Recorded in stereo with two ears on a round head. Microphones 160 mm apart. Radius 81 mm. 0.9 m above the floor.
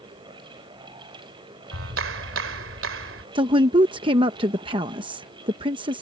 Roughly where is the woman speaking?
Right.